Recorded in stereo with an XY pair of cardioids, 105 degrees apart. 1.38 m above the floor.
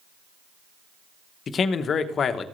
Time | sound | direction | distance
1.5 | a man speaking | 50° left | 1.1 m